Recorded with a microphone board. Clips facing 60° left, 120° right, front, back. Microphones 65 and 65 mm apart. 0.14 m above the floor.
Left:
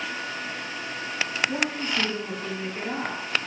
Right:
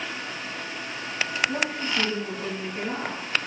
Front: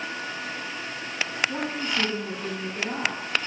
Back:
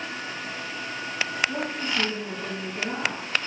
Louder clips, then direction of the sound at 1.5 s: Even, even; 100° left.